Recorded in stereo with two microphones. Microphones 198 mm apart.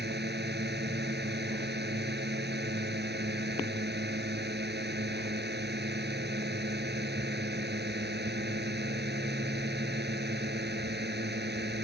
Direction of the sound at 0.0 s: 55° right (ahead or behind).